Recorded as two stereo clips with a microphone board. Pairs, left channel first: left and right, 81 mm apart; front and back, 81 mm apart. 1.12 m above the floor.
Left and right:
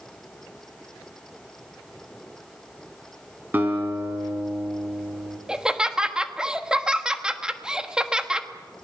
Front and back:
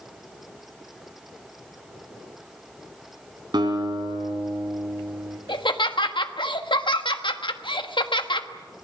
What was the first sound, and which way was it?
A guitar, 160° right.